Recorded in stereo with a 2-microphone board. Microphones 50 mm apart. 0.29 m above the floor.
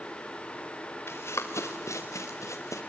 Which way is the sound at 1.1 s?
55° left (ahead or behind).